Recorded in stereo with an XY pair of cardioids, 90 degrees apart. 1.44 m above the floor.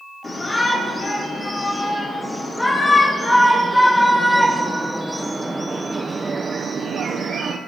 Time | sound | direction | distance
0.2 | a shout | 40° left | 3.5 m